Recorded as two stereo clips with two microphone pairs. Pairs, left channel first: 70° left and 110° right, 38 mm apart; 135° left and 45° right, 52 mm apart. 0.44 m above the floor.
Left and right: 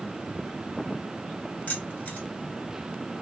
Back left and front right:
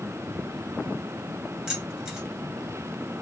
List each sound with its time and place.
1.7 s keys jangling: 30° left, 1.5 m